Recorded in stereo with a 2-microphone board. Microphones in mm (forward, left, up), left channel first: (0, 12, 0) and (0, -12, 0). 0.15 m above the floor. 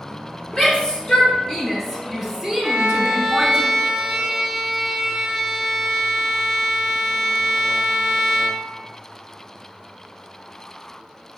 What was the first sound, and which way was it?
A shout, 35° left (ahead or behind).